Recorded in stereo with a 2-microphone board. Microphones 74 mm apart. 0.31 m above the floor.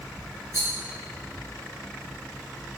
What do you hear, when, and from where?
0.5 s a rattle: 45° right (ahead or behind), 1.7 m